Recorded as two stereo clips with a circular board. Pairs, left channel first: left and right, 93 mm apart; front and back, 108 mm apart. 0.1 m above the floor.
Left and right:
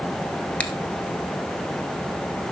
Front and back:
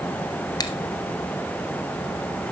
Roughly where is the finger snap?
Ahead.